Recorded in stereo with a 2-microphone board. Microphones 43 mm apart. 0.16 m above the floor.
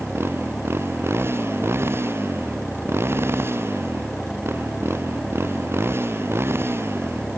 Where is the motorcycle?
70° right (ahead or behind).